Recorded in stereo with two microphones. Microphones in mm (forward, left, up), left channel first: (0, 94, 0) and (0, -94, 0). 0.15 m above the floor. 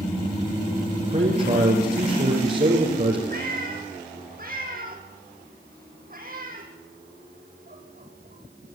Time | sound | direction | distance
1.0 | a man speaking | 40° right (ahead or behind) | 3.5 m
3.3 | a cat meowing | 50° right (ahead or behind) | 3 m